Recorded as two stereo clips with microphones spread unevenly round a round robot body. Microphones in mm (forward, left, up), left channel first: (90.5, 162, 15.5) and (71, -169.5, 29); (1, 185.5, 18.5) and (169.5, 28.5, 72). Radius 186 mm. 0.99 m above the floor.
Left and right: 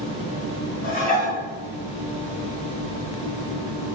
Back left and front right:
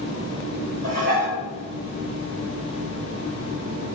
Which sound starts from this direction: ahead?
Dishes clattering, at 0.8 s.